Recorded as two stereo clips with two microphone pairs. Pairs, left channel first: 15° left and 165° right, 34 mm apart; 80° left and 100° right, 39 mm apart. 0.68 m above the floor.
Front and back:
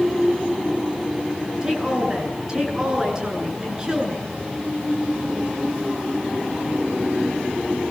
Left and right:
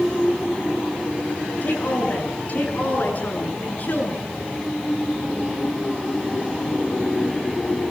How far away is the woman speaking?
About 9.5 m.